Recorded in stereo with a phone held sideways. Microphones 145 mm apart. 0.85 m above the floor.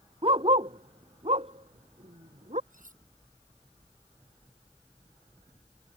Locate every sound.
0.2 s a dog barking: 40° right (ahead or behind); by 2.6 s 50° right (ahead or behind)
2.7 s cutlery clinking: 65° right (ahead or behind)